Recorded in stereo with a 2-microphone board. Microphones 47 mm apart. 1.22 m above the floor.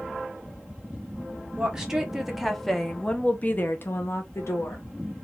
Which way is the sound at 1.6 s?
15° right (ahead or behind).